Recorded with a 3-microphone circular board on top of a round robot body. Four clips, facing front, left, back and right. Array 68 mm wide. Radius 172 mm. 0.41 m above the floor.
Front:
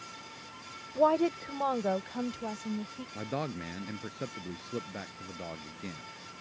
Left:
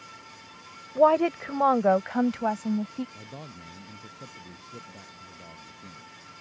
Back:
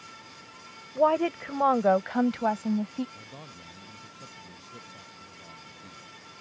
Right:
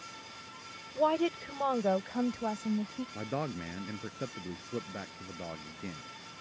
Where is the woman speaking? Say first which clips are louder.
Left 8 dB, back 2 dB; 100° left; by 3.0 s 145° left.